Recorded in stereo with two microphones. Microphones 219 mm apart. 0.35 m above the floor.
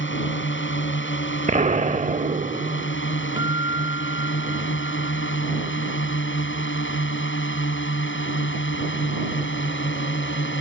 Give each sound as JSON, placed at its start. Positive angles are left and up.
{"t": 0.0, "sound": "a drone", "side_deg": 60}
{"t": 1.5, "sound": "an explosion", "side_deg": -35}
{"t": 3.4, "sound": "a guitar", "side_deg": -20}